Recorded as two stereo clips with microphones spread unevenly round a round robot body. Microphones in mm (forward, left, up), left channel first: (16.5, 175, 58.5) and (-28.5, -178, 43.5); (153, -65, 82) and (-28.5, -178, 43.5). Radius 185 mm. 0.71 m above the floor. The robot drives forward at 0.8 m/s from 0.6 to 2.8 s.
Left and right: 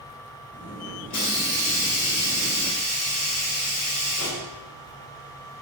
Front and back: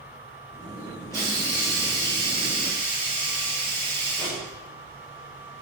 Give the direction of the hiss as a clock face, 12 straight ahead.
8 o'clock.